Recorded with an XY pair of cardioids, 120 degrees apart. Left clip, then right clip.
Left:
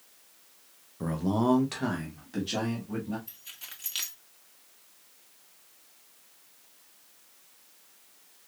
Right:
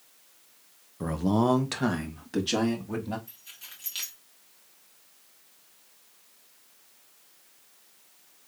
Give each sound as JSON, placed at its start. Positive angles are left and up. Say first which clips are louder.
{"t": 1.0, "sound": "a man speaking", "louder": "right 2 dB", "azimuth_deg": -15, "distance_m": 0.7}
{"t": 3.3, "sound": "keys jangling", "louder": "left 1 dB", "azimuth_deg": 20, "distance_m": 1.6}